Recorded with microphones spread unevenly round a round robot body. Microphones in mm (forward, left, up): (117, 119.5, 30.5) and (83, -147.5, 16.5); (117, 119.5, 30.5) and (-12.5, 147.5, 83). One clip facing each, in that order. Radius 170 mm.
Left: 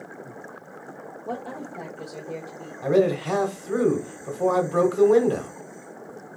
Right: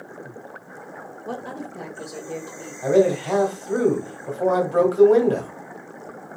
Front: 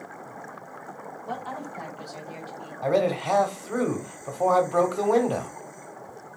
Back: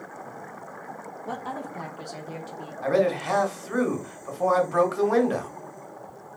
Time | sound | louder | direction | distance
1.2 | a woman speaking | right 1 dB, back 1 dB | 150° right | 1.0 m
2.8 | a man speaking | right 3 dB, even | 30° left | 1.3 m